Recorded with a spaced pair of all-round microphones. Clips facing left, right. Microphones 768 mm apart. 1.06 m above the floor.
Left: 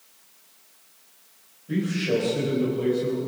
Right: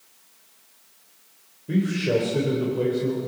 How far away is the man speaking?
About 4 m.